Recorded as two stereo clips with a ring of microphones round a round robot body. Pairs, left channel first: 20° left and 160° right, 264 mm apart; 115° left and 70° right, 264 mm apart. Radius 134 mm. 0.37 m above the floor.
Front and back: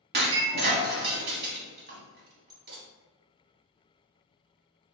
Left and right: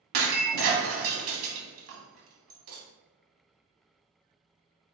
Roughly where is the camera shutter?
I don't hear a camera shutter.